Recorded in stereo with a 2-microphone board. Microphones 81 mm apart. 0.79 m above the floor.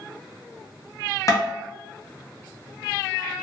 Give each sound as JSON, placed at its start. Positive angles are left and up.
{"t": 1.3, "sound": "tapping", "side_deg": 45, "distance_m": 0.8}